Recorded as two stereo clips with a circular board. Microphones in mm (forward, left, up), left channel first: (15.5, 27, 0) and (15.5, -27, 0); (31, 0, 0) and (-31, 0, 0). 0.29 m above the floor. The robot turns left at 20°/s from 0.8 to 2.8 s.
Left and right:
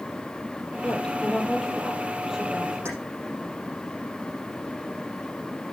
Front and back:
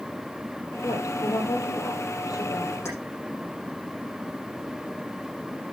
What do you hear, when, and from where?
0.8 s a woman speaking: 20° left, 8 m; by 2.8 s 15° right, 8 m
2.9 s keys jangling: 45° right, 8 m